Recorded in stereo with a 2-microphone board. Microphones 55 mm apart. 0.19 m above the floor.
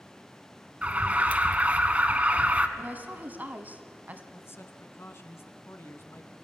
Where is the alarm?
25° right (ahead or behind), 1.1 m.